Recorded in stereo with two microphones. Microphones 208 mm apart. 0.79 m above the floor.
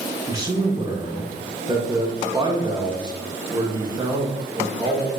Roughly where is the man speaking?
Centre.